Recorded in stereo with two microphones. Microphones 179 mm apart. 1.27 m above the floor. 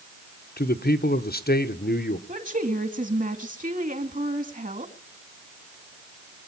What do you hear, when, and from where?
0.6 s a man speaking: 60° left (ahead or behind), 1.1 m
2.3 s a woman speaking: 45° right (ahead or behind), 2.0 m